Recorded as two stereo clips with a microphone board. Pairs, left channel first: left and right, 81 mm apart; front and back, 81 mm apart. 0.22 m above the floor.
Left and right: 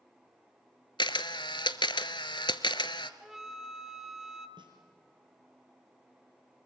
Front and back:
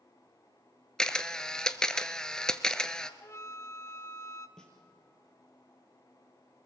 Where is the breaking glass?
I don't hear breaking glass.